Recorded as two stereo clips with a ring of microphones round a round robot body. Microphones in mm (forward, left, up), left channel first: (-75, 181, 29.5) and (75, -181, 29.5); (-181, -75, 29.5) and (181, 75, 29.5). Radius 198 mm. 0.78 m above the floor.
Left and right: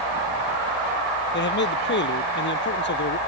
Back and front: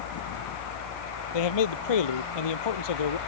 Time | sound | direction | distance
1.3 | a man speaking | 175° left | ?